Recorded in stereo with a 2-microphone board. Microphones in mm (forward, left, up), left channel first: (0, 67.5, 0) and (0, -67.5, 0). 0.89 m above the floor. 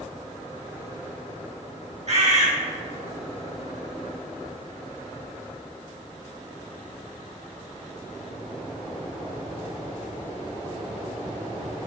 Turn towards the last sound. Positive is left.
turn(degrees=-55)  # may be behind; listen again after turning